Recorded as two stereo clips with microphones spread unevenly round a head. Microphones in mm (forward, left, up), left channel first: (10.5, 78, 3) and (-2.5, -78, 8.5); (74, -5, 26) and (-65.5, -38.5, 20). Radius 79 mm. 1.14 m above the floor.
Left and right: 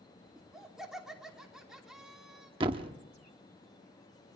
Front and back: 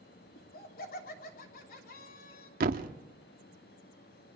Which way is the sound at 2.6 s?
150° right.